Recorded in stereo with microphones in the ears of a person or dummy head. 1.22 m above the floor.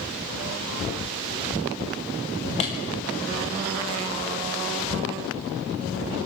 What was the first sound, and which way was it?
A clap, 30° left (ahead or behind).